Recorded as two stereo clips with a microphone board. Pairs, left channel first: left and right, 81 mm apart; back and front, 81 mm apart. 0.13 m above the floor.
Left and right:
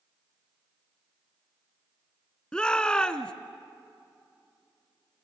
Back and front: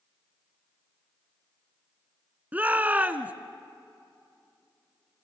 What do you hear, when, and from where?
2.5 s a shout: 30° left, 1.1 m